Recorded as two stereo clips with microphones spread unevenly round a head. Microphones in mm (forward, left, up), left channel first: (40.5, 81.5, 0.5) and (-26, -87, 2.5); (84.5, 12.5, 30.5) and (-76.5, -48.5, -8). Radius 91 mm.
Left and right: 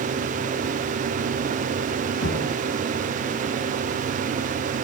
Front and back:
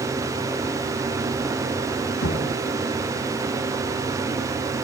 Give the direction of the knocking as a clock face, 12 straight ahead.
11 o'clock.